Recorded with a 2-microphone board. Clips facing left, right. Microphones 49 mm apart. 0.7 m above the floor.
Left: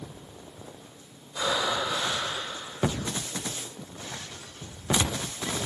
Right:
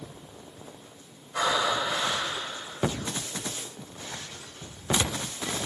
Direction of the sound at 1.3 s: 65° right (ahead or behind).